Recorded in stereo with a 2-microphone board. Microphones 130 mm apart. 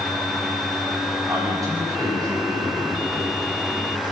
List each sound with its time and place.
1.3 s a man speaking: 25° right (ahead or behind), 6.5 m; by 4.1 s 40° right (ahead or behind), 6.5 m